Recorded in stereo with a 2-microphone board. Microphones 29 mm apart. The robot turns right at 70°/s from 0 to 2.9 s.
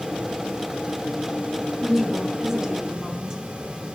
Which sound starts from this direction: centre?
A woman speaking, at 1.8 s.